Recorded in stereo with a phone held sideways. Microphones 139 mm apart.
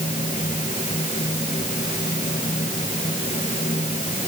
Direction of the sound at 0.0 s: 55° left (ahead or behind).